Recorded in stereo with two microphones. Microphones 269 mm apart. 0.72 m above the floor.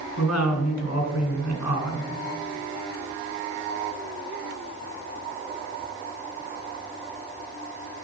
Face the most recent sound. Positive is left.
turn(degrees=70)  # may be behind; listen again after turning